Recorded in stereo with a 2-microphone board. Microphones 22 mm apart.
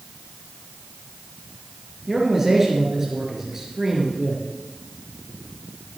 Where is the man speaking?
20° right (ahead or behind), 4 m.